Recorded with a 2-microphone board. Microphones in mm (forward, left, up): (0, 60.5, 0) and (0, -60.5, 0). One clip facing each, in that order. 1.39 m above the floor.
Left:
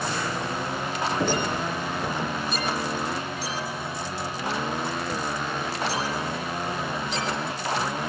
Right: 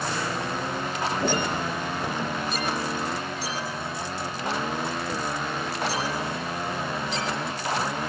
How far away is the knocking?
About 8 m.